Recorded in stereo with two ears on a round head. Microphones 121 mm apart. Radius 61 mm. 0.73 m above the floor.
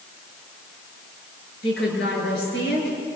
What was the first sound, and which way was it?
A woman speaking, 85° left.